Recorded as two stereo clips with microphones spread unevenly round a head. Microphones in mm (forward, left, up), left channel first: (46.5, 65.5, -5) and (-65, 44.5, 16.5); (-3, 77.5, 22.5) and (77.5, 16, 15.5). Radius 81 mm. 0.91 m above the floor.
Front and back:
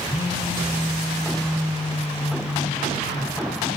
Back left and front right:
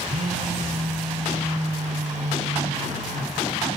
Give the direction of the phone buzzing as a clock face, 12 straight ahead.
2 o'clock.